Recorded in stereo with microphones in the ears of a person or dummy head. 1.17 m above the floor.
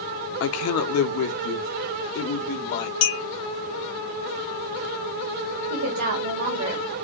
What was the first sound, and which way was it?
A man speaking, 50° left (ahead or behind).